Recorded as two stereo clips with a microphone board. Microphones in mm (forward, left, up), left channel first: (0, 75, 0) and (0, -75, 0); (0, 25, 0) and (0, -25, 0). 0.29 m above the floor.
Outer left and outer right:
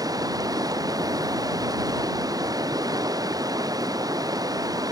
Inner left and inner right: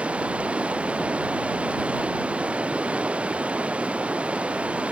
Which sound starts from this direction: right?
Running water, at 0.0 s.